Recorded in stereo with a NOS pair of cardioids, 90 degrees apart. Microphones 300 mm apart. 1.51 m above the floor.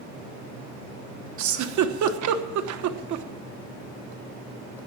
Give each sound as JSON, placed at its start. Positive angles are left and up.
{"t": 1.4, "sound": "a giggle", "azimuth_deg": -65, "distance_m": 1.2}